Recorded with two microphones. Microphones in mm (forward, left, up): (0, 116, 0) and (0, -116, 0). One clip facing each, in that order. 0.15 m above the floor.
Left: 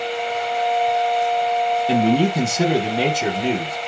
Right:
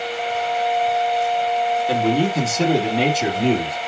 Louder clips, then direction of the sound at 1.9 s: Left 3 dB; 25° left (ahead or behind).